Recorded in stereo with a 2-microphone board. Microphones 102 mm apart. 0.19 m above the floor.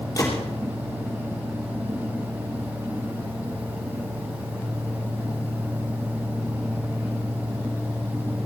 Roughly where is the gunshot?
Left.